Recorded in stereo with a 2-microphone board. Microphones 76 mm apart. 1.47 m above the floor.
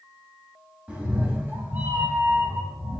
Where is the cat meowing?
15° right (ahead or behind), 1.0 m; by 3.0 s 30° right (ahead or behind), 1.8 m.